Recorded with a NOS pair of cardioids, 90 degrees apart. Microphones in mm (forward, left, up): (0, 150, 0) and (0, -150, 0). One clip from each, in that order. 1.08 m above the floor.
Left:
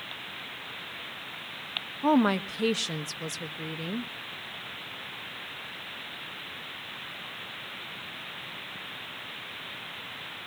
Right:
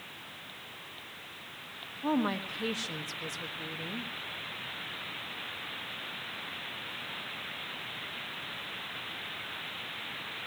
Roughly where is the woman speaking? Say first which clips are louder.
Left 7 dB; ahead left.